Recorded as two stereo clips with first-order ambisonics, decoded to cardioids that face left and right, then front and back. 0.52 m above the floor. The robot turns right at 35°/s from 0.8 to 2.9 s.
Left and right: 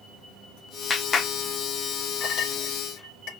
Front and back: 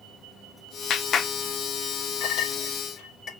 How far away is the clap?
About 0.6 m.